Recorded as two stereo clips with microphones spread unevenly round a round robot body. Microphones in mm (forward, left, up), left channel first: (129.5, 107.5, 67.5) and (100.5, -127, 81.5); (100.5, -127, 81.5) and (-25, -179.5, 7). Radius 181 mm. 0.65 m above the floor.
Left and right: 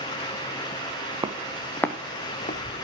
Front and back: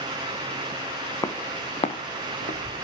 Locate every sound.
1.2 s footsteps: 30° right, 1.7 m; by 2.8 s 35° left, 2.5 m